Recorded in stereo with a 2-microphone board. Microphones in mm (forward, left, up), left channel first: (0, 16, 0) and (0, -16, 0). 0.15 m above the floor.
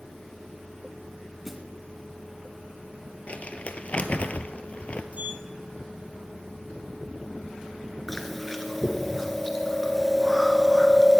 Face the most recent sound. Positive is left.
turn(degrees=5)  # may be behind; listen again after turning